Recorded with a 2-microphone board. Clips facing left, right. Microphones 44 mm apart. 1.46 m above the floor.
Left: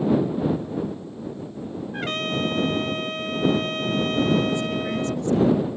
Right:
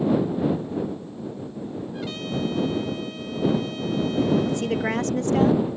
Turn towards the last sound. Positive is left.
turn(degrees=-70)  # may be behind; listen again after turning